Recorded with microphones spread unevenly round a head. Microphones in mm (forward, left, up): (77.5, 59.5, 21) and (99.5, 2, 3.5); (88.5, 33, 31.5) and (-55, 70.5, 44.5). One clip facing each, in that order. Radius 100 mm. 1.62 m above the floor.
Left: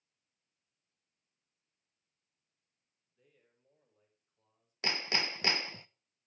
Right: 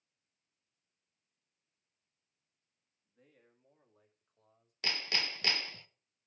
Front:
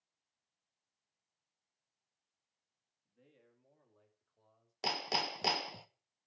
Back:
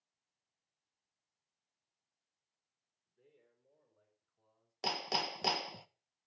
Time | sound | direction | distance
3.0 | a man speaking | 30° right | 2.5 m
4.8 | hammering | 80° left | 0.5 m